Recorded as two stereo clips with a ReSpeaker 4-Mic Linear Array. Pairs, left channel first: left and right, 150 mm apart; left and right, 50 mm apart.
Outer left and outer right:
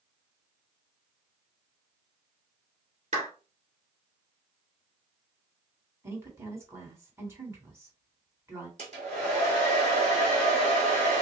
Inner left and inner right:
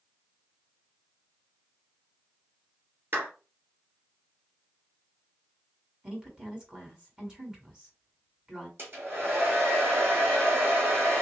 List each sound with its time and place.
3.1 s a clap: 45° right (ahead or behind), 1.9 m
6.0 s a woman speaking: 15° right (ahead or behind), 1.7 m
8.8 s a hair dryer: 45° right (ahead or behind), 3 m